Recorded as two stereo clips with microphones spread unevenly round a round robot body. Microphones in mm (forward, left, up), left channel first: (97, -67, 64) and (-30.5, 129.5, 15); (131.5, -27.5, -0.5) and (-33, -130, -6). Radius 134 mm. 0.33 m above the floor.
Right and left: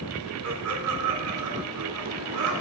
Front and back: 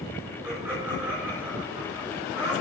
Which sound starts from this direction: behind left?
Laughter, at 0.4 s.